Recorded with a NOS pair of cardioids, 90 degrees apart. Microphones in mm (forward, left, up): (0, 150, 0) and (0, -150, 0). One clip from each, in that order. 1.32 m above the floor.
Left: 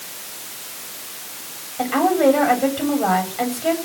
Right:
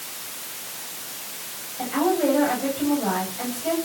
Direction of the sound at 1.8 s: 65° left.